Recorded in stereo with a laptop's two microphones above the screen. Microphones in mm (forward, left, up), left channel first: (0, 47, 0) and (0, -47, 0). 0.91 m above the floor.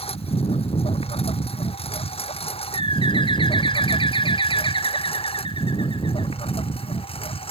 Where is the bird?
60° left (ahead or behind).